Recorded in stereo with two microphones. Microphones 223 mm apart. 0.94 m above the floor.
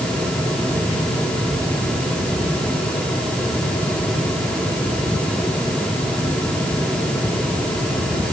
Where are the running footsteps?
No running footsteps in this recording.